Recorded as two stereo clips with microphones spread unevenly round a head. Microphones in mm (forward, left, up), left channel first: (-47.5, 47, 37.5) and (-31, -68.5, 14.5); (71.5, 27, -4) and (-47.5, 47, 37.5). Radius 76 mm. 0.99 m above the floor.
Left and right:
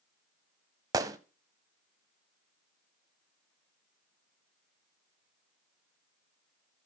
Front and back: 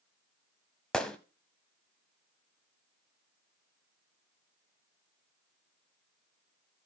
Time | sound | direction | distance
0.9 | a gunshot | 135° right | 0.8 m